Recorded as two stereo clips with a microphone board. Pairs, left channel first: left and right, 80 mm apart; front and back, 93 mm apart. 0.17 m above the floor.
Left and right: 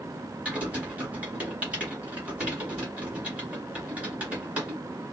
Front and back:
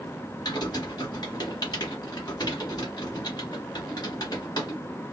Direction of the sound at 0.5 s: 20° right.